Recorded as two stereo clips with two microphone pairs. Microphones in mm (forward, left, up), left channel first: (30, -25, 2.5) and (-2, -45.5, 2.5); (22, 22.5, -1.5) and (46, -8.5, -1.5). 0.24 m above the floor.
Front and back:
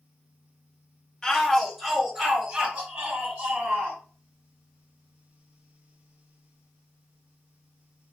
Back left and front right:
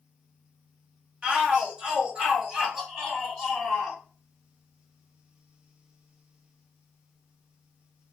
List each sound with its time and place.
1.2 s a shout: 20° right, 1.0 m; by 4.0 s 125° right, 1.8 m